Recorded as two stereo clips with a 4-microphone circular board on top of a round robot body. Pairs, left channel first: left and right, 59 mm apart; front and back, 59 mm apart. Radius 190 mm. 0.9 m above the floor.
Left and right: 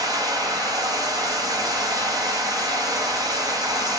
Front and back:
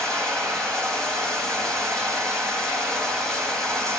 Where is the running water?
80° right, 1.8 m.